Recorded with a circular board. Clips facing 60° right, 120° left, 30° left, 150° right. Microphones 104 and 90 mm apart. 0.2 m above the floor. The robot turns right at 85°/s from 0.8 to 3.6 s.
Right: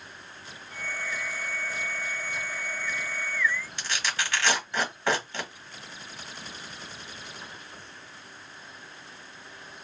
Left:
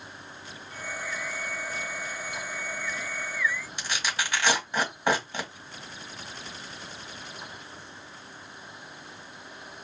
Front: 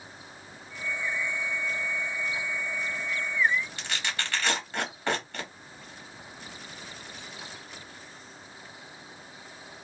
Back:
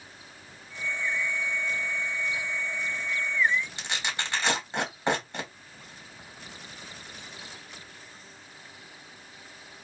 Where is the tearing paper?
170° left, 1.1 m.